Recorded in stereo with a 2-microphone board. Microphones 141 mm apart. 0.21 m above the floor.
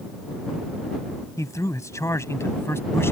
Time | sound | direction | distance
1.4 | a man speaking | 25° left (ahead or behind) | ?